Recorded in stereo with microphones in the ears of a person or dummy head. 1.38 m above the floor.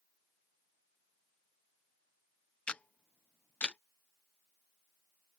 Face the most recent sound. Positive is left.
turn(degrees=5)  # may be behind; listen again after turning